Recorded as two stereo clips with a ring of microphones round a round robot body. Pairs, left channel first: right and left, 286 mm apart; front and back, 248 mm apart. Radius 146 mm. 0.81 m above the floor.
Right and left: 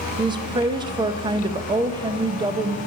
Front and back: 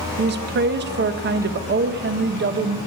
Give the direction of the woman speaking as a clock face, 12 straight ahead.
7 o'clock.